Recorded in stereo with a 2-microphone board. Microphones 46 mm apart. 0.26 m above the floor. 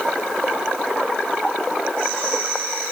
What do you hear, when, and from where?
Only background noise.